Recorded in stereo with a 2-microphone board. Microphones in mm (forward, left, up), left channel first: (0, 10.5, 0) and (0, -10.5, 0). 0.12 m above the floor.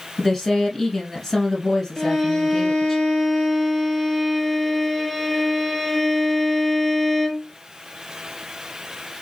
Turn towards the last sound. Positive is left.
turn(degrees=20)  # may be behind; listen again after turning